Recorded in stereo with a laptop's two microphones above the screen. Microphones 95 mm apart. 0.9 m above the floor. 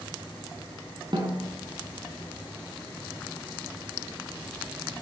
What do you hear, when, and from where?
1.1 s a snare drum: 55° right (ahead or behind), 4 m